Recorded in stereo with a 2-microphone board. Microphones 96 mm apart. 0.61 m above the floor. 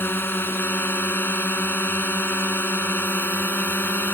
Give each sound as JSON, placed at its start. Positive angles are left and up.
{"t": 0.0, "sound": "a drone", "side_deg": 20}